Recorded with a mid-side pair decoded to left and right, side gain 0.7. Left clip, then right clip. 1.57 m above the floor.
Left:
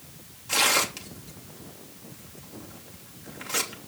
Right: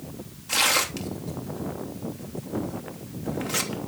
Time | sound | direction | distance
0.5 | tearing paper | 10° right | 3 m